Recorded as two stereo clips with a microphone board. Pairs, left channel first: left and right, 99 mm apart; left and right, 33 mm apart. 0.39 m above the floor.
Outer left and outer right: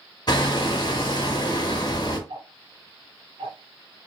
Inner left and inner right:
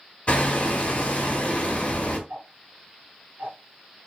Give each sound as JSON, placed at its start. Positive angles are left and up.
{"t": 0.3, "sound": "hammering", "side_deg": 45, "distance_m": 0.8}
{"t": 2.3, "sound": "ticking", "side_deg": -85, "distance_m": 0.8}